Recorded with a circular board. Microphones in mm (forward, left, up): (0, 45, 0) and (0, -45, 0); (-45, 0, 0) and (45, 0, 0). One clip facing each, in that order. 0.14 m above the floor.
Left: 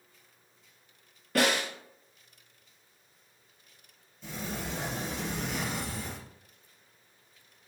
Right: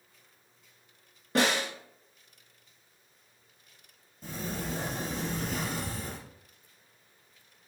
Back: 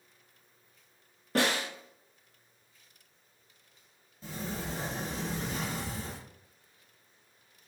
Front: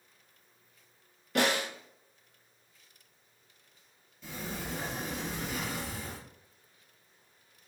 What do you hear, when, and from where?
1.4 s a snare drum: 145° right, 2 m
4.2 s a sliding door: 130° right, 2.5 m